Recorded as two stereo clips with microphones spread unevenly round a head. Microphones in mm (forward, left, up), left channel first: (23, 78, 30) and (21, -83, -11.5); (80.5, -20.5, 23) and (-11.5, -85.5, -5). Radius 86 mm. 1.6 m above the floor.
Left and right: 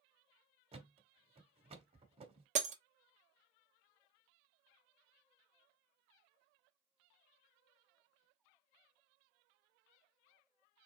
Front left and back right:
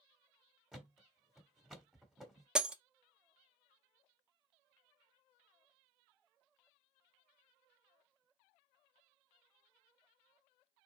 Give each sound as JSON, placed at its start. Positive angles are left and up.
{"t": 0.7, "sound": "a thud", "azimuth_deg": -40, "distance_m": 1.5}
{"t": 2.5, "sound": "breaking glass", "azimuth_deg": -45, "distance_m": 0.8}